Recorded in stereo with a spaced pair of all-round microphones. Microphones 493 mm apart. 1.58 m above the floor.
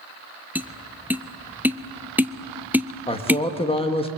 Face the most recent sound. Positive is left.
turn(degrees=10)  # may be behind; listen again after turning